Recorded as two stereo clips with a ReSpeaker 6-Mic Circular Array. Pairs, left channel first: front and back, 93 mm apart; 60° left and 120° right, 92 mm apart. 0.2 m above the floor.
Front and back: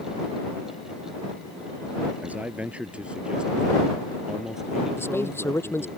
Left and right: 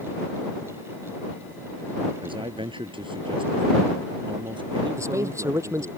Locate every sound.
2.2 s a man speaking: 105° right; by 6.0 s 90° right
5.0 s a man speaking: 65° right